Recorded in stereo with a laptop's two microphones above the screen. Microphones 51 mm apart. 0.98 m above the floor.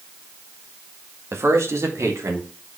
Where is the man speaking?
60° right (ahead or behind), 1.7 m; by 2.5 s 75° right (ahead or behind), 3 m.